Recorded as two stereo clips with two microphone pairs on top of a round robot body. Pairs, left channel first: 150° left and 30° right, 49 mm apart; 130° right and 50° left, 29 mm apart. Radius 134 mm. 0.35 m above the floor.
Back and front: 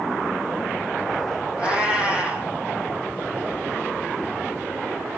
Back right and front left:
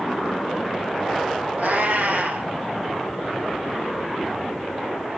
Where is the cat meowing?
40° left, 2.5 m.